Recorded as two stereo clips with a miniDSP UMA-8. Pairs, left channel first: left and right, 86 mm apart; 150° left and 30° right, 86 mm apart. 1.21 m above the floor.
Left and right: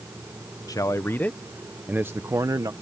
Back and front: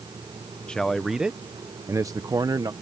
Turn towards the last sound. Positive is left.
turn(degrees=-60)